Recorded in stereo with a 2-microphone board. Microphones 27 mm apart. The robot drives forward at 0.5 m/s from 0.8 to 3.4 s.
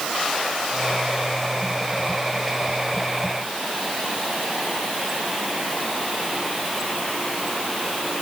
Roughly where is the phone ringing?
No phone ringing in this recording.